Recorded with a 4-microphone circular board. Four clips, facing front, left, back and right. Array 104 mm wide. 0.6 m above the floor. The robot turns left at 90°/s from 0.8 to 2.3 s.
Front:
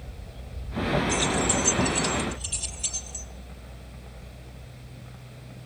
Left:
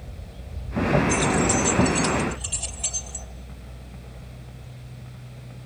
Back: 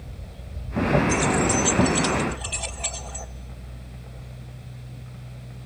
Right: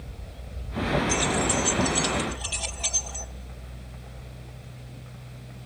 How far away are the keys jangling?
About 2 m.